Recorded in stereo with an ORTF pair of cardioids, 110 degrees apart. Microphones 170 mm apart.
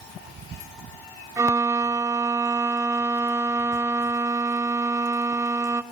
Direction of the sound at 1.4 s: 15° right.